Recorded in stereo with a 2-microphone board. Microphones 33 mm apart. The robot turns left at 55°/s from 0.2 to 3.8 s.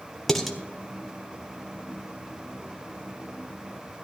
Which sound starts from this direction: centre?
Dishes clattering, at 0.3 s.